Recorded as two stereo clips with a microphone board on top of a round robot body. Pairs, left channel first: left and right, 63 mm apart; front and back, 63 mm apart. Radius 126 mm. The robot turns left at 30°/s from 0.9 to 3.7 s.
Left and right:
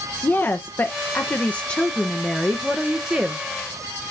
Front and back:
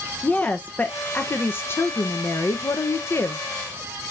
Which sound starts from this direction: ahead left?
A woman speaking, at 0.2 s.